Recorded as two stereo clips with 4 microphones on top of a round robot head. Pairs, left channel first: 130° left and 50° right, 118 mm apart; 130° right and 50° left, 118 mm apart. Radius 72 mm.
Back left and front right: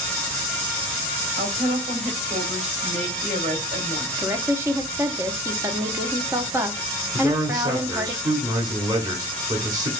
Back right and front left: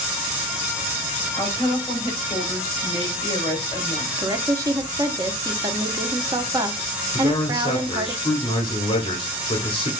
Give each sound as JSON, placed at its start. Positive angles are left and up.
{"t": 1.4, "sound": "a woman speaking", "azimuth_deg": -75, "distance_m": 3.0}
{"t": 4.2, "sound": "a woman speaking", "azimuth_deg": 5, "distance_m": 0.9}
{"t": 7.1, "sound": "a man speaking", "azimuth_deg": -100, "distance_m": 1.1}